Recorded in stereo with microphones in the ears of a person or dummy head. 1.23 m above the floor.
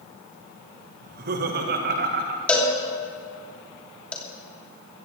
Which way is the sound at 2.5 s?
5° left (ahead or behind).